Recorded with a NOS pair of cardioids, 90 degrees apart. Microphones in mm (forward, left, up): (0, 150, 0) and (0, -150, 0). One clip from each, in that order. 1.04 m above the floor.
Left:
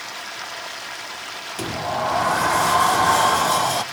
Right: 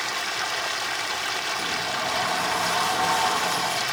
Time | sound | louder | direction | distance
0.0 | running water | right 5 dB | 20° right | 0.7 m
1.6 | a sliding door | left 2 dB | 50° left | 0.7 m